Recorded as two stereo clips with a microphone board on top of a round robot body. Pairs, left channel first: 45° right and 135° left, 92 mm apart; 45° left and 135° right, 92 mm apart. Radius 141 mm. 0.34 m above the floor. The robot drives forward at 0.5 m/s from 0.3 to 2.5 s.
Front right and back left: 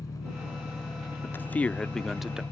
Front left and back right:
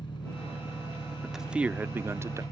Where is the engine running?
10° left.